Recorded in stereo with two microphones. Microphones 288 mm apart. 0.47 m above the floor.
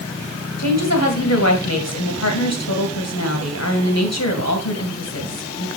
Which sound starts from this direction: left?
A woman speaking, at 0.6 s.